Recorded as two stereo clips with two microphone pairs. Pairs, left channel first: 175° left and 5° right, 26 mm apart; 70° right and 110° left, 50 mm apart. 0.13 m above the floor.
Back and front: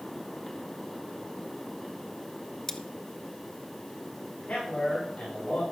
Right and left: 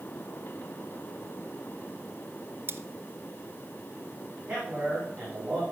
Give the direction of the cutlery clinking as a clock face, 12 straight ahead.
8 o'clock.